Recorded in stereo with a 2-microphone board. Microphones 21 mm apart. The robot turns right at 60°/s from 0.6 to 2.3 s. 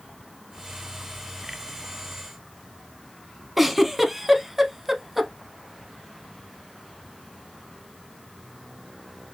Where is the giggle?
10° right (ahead or behind), 0.7 m.